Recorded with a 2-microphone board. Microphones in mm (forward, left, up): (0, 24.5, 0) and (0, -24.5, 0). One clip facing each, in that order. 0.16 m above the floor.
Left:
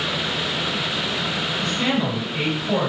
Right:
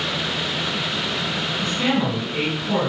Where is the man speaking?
35° right (ahead or behind), 1.5 m; by 2.9 s 30° right (ahead or behind), 1.4 m.